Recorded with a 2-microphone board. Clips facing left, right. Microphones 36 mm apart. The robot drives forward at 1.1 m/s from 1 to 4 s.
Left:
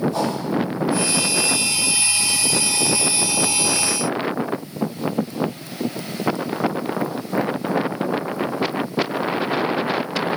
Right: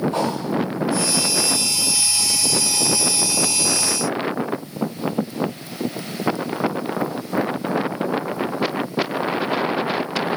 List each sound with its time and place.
0.1 s a whoosh: 45° right (ahead or behind), 2.5 m